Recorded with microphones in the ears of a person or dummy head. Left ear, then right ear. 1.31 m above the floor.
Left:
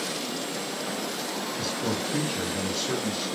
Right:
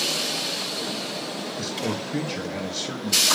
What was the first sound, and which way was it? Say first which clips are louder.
A man speaking: right 1 dB; 15° right (ahead or behind).